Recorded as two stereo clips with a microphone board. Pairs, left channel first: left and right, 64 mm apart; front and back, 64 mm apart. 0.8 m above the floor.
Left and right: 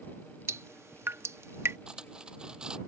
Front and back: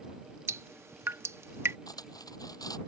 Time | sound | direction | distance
0.5 | dripping | 135° right | ?
1.9 | cutlery clinking | 15° right | ?